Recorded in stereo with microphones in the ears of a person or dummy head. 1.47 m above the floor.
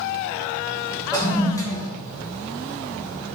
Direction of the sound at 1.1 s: 15° left (ahead or behind).